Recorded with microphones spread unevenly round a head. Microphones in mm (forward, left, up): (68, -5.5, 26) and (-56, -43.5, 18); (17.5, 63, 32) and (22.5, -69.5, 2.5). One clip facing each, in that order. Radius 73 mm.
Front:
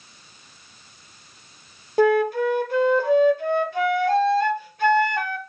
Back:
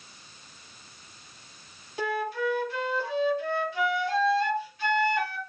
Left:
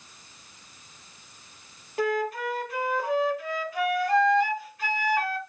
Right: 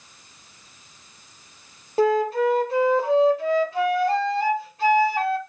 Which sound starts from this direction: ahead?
A flute, at 2.0 s.